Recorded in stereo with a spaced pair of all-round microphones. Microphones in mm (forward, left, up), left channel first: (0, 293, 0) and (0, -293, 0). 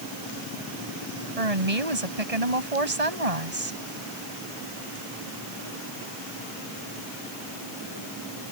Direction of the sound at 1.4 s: 90° right.